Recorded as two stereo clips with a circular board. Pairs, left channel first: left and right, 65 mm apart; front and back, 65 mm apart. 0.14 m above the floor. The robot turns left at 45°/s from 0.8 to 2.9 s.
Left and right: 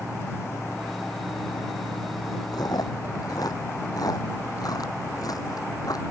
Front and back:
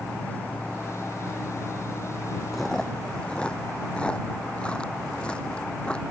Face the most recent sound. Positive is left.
turn(degrees=75)